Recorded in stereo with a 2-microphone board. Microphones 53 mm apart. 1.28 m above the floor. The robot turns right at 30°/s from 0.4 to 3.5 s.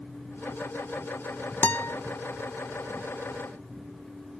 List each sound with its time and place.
1.6 s a guitar: 35° left (ahead or behind); by 2.0 s 40° left (ahead or behind)